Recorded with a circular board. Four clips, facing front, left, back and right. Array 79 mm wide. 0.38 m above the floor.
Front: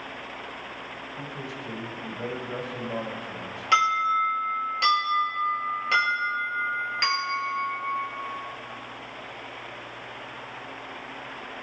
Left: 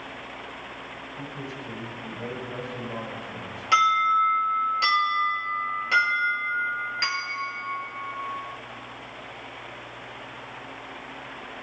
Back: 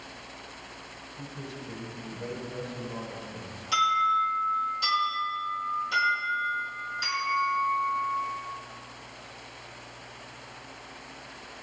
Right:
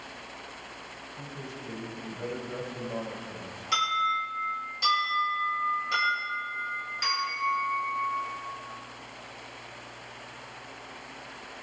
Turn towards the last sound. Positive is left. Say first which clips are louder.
# left 7 dB, front 2 dB
turn(degrees=30)